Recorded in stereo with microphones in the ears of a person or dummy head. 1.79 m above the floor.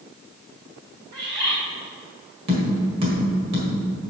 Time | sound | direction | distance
1.1 | a bird | 30° right (ahead or behind) | 2 m
2.5 | tapping | 35° right (ahead or behind) | 1.9 m